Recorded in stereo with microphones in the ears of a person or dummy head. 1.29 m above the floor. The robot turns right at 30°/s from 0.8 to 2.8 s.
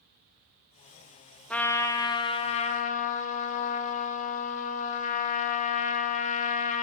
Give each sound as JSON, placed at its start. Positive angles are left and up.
{"t": 1.5, "sound": "a trumpet", "azimuth_deg": 10, "distance_m": 0.6}